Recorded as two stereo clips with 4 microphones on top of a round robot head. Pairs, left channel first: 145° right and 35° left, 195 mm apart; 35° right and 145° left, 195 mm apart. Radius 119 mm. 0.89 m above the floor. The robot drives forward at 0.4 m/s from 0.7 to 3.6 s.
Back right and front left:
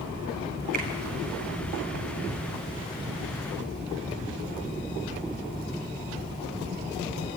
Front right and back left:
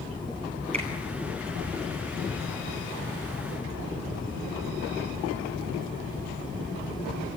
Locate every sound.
0.7 s a finger snap: 85° left, 6 m